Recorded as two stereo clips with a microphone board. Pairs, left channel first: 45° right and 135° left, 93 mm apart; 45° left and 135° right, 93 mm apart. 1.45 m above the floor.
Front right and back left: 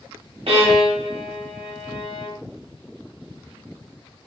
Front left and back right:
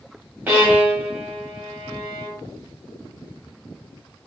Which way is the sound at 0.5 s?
155° left.